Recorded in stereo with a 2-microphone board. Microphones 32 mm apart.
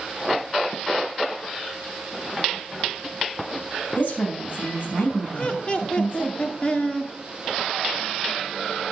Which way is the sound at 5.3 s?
40° left (ahead or behind).